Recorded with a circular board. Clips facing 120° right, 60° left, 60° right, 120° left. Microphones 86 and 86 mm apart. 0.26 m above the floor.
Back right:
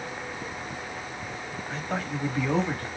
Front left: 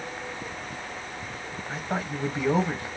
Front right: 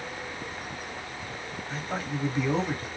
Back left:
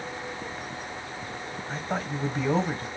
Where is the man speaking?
115° left, 1.2 m.